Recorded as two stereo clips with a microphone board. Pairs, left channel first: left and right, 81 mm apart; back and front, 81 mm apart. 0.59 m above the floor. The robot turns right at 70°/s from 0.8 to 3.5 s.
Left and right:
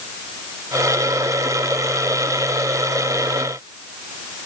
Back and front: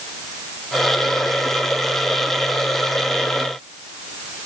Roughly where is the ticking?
I don't hear ticking.